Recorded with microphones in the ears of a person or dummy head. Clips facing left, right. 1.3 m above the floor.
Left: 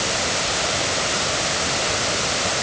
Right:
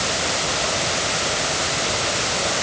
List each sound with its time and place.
Only background noise.